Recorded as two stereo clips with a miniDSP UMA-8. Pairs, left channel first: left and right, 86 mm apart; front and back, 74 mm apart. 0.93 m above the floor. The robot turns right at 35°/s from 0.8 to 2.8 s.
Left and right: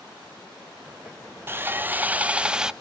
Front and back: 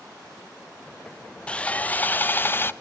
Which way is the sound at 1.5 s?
60° right.